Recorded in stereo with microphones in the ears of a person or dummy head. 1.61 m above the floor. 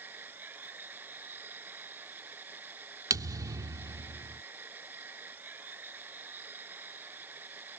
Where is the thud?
20° right (ahead or behind).